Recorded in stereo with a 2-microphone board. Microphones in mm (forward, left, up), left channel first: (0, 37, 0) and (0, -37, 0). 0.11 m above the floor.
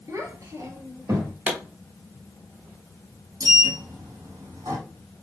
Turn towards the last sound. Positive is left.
turn(degrees=-55)  # may be behind; listen again after turning